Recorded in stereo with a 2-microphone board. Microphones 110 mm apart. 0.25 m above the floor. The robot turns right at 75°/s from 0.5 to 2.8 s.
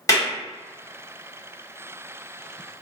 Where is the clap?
30° left (ahead or behind), 1.4 m.